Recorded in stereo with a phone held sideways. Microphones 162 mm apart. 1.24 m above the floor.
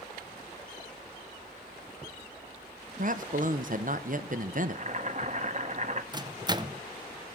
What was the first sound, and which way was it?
A man speaking, 55° right (ahead or behind).